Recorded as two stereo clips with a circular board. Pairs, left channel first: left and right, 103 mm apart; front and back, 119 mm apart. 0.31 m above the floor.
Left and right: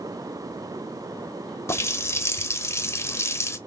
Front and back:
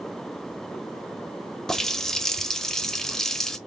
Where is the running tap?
80° left, 0.6 m.